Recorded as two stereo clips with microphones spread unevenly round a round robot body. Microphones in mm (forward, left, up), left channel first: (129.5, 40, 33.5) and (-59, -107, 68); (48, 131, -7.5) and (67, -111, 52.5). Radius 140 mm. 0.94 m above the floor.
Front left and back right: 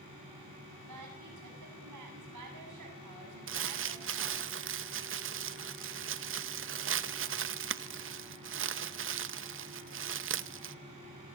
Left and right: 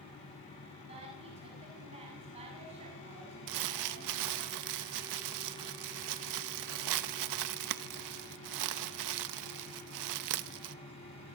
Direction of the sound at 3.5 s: 105° right.